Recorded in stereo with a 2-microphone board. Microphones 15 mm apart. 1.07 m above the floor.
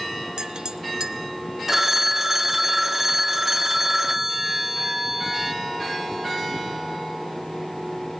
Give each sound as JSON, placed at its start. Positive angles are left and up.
{"t": 0.4, "sound": "a clink", "side_deg": -55, "distance_m": 1.0}
{"t": 1.7, "sound": "a phone ringing", "side_deg": -20, "distance_m": 0.9}